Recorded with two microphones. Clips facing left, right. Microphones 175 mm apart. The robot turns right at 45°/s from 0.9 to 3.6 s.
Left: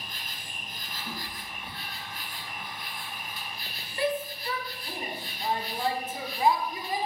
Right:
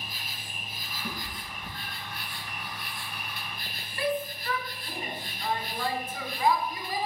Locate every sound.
0.0 s an insect: 175° right, 0.8 m; by 7.1 s 50° right, 0.8 m
1.0 s a cat meowing: 80° right, 3 m; by 2.2 s 30° right (ahead or behind), 3 m
4.0 s a shout: 25° left (ahead or behind), 1.2 m